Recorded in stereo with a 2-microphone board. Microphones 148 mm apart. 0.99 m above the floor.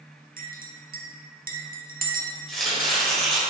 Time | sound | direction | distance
0.4 | a clink | 75° right (ahead or behind) | 0.6 m
2.5 | chopping | centre (ahead or behind) | 1.7 m